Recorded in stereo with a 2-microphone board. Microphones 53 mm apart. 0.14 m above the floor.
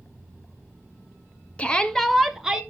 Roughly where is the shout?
Left.